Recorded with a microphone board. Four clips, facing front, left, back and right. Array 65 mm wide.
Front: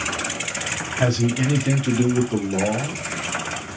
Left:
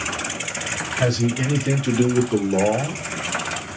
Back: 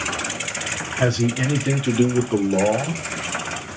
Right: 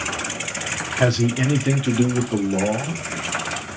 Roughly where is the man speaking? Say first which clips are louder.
Right 2 dB, even; right.